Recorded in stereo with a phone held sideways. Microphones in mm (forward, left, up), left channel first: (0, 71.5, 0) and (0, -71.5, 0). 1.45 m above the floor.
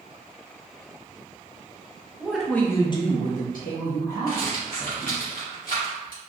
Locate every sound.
2.2 s a woman speaking: 5° right (ahead or behind), 1.0 m; by 5.2 s 70° left (ahead or behind), 2 m
4.3 s a rattle: 80° left, 1.5 m